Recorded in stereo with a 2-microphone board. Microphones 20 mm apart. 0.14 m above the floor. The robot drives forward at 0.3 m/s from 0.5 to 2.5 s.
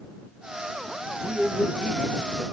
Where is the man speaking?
30° right (ahead or behind), 1.6 m; by 2.4 s 25° right (ahead or behind), 1.7 m.